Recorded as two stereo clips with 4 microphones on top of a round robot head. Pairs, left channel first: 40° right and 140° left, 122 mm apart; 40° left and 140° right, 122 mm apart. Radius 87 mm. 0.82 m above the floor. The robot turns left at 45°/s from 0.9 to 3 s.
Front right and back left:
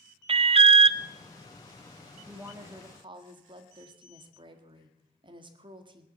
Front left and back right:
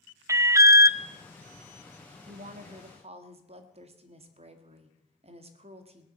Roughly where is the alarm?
Behind.